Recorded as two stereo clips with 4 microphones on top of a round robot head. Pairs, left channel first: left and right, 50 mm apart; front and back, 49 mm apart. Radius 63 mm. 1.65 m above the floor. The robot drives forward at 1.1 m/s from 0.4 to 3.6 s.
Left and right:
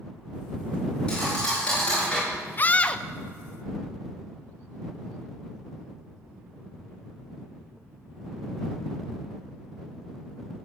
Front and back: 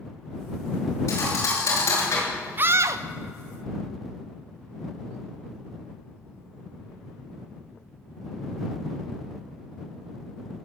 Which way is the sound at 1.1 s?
10° left.